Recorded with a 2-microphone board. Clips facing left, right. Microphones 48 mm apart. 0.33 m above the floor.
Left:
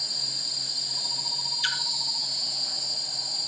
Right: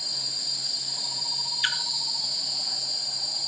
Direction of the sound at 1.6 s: 25° right (ahead or behind).